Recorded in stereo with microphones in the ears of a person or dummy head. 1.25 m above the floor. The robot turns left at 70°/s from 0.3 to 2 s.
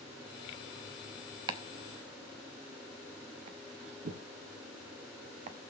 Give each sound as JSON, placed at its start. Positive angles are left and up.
{"t": 1.5, "sound": "chopping", "side_deg": -25, "distance_m": 0.7}